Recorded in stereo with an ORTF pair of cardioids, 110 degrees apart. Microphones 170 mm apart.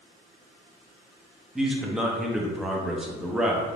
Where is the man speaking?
5° right, 0.5 m.